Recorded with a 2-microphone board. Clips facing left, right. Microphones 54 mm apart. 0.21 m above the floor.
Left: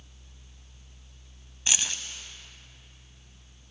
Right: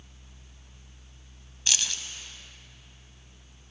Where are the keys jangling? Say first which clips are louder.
Even; 20° left (ahead or behind), 0.7 m.